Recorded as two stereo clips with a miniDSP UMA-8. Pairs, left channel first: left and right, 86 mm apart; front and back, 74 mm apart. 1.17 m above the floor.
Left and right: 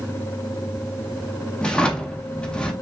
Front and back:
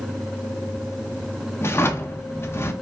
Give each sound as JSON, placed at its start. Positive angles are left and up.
{"t": 1.6, "sound": "a drawer", "azimuth_deg": 15, "distance_m": 0.7}